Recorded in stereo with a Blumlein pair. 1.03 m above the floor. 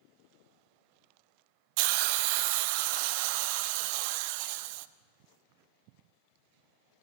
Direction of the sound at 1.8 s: 45° right.